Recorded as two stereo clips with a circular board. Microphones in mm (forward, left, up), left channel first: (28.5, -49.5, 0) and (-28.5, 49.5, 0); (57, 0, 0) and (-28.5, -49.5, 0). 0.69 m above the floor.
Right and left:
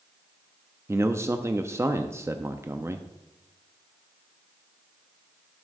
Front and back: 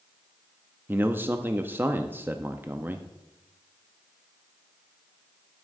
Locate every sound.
0.9 s a man speaking: 160° left, 0.5 m